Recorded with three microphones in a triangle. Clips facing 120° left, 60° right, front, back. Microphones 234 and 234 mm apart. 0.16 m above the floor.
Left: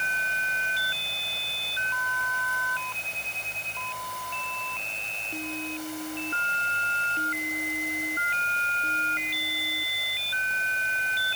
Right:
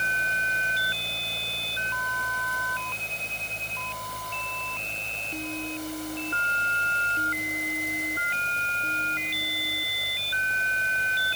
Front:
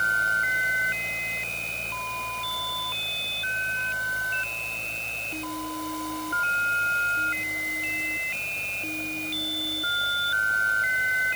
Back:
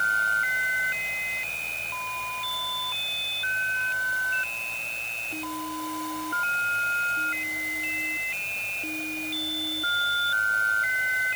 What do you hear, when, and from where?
Only background noise.